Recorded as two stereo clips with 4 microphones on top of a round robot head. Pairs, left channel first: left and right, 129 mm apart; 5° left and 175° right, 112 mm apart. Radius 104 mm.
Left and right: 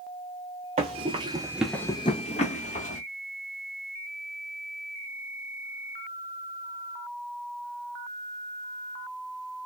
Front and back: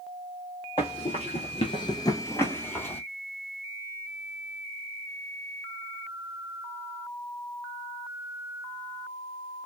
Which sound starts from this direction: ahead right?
Running footsteps, at 0.8 s.